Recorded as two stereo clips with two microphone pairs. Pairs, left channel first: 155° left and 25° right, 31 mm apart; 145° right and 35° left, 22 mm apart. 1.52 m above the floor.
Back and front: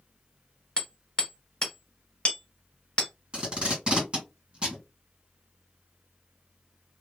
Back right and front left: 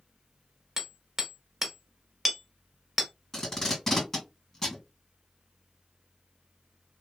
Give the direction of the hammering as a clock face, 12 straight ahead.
8 o'clock.